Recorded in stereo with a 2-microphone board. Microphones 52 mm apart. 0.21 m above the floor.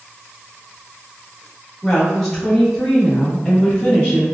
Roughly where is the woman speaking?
Centre.